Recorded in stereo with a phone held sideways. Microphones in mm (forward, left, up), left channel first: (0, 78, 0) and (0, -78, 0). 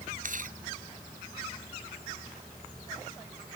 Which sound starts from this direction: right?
Chewing, at 0.2 s.